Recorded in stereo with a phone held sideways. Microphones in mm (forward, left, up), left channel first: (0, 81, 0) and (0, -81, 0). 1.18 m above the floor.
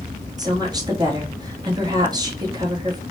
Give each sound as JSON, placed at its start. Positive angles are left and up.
{"t": 0.4, "sound": "a woman speaking", "side_deg": -25, "distance_m": 1.3}